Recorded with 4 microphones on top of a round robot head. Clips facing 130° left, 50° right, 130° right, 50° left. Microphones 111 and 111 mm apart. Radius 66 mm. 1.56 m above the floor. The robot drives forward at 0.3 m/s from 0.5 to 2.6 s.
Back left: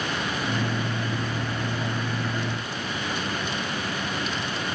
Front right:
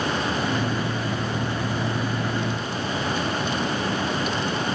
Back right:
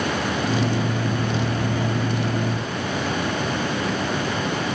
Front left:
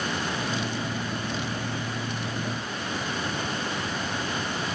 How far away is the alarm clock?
No alarm clock in this recording.